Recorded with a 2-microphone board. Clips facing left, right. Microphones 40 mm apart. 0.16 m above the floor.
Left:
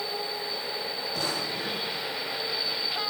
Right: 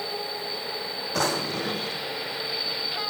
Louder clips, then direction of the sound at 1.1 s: Right 7 dB; 80° right.